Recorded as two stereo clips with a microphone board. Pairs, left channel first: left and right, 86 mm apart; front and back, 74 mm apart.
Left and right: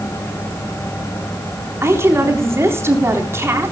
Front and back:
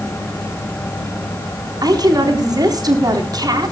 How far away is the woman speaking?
About 3.5 m.